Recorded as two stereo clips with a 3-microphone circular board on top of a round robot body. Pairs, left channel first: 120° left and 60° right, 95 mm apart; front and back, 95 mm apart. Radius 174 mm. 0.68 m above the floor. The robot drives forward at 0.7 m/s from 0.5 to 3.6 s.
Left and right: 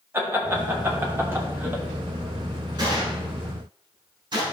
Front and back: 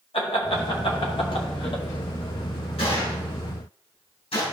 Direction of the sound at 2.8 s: 15° right.